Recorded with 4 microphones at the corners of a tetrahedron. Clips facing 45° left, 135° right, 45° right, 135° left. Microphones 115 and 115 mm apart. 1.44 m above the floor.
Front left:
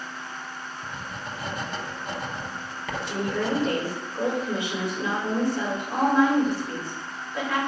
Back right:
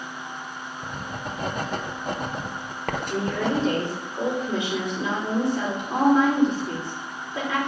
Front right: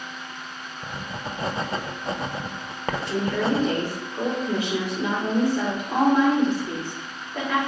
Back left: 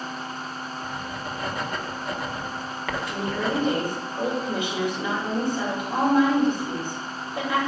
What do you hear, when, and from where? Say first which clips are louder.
0.8 s writing: back right 5 dB, front right 3 dB; 105° right, 0.7 m
3.1 s a woman speaking: back right 1 dB, front right 4 dB; 65° right, 5 m